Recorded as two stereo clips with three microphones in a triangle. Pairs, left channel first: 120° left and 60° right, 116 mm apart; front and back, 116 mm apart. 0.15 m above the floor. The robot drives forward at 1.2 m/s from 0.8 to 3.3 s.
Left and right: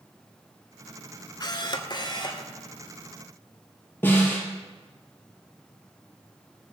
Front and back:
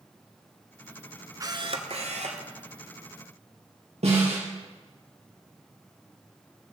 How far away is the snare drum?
About 3.5 m.